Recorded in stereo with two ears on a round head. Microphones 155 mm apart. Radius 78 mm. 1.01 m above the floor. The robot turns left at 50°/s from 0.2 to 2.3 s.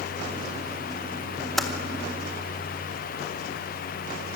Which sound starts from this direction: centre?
Typing on a keyboard, at 1.6 s.